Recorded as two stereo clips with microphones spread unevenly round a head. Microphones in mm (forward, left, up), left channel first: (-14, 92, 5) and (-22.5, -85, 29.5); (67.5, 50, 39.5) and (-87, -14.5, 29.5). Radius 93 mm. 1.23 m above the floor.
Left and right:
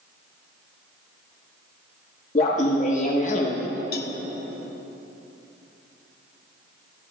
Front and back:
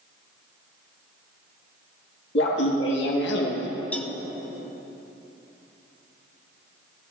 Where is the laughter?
35° left, 1.9 m.